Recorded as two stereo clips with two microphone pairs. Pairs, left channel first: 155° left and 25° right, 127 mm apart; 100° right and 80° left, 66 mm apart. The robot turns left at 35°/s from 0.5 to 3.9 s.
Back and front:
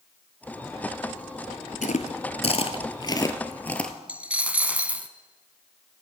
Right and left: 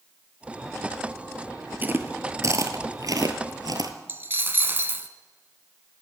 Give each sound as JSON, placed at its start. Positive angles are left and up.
{"t": 1.8, "sound": "chewing", "azimuth_deg": 140, "distance_m": 0.9}
{"t": 4.1, "sound": "a dropped coin", "azimuth_deg": 45, "distance_m": 0.6}